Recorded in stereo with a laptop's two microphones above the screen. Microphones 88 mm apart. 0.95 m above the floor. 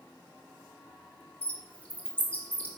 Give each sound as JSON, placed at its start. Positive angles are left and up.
{"t": 1.4, "sound": "a bird", "side_deg": 15, "distance_m": 2.5}